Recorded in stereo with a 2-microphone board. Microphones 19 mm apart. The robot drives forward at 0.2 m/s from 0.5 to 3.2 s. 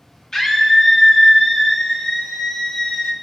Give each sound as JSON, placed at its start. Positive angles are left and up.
{"t": 0.3, "sound": "a scream", "side_deg": 35, "distance_m": 1.3}